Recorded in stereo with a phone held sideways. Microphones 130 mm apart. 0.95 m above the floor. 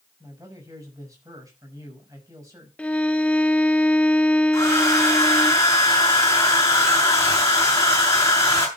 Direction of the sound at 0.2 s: 25° right (ahead or behind).